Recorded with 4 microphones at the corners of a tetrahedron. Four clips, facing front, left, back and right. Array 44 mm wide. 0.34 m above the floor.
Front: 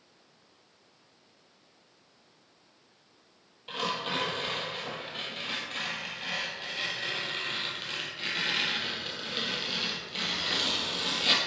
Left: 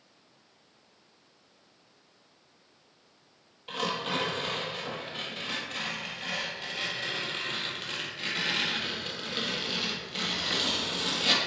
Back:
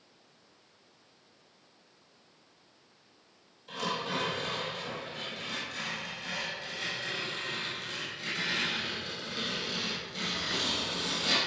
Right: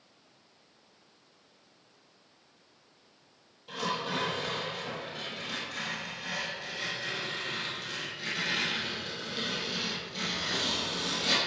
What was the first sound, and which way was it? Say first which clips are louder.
Tearing paper: left 2 dB, front 2 dB; 45° left.